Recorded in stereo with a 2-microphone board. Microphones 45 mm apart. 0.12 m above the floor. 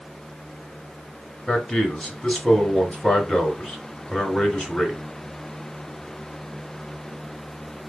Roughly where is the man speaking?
Left.